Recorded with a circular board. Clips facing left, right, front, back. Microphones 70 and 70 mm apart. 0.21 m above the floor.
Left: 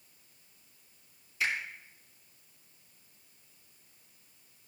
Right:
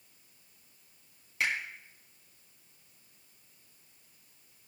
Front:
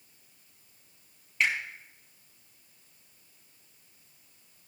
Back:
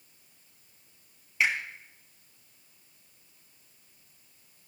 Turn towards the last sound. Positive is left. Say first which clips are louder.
# right 1 dB, back 1 dB
turn(degrees=-100)